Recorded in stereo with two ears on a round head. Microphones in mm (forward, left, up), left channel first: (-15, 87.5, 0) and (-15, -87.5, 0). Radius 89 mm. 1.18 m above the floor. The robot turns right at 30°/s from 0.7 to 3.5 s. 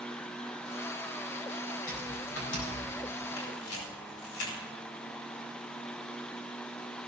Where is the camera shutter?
75° left (ahead or behind), 5 m; by 4.6 s 80° left, 5 m.